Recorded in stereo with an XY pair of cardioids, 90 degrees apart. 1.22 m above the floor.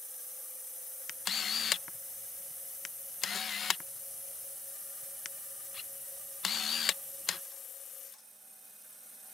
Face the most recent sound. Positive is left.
turn(degrees=50)